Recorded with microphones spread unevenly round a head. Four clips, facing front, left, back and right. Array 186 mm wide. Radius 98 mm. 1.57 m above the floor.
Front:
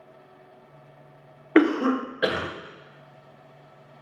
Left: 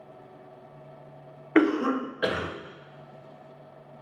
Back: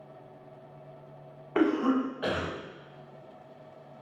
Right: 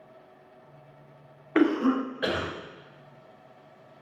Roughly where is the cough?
Ahead left.